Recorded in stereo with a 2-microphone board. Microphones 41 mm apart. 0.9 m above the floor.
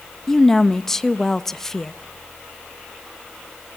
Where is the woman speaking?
10° left (ahead or behind), 0.9 m.